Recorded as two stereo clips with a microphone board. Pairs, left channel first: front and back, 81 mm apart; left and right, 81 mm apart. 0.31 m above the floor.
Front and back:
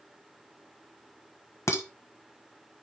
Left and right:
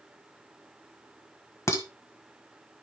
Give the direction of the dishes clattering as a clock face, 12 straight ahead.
11 o'clock.